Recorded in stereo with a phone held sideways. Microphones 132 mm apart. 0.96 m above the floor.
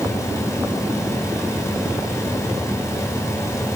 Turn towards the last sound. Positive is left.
turn(degrees=20)  # may be behind; listen again after turning